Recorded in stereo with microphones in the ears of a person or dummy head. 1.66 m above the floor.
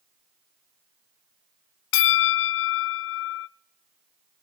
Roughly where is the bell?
Left.